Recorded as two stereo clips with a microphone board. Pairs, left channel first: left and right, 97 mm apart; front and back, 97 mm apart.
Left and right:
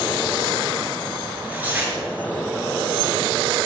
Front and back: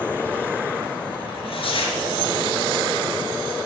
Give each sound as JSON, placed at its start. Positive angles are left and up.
{"t": 1.3, "sound": "tearing paper", "azimuth_deg": -15, "distance_m": 4.0}